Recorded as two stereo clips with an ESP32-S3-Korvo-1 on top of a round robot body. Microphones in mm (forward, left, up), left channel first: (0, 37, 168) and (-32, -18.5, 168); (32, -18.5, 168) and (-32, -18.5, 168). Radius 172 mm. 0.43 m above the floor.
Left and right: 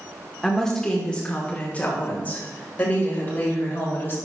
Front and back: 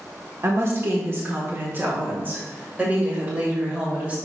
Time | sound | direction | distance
0.4 | a woman speaking | 145° left | 1.4 m